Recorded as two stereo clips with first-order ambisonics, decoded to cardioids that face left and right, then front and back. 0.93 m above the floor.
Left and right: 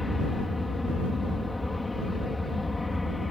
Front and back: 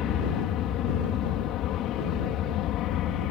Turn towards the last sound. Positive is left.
turn(degrees=10)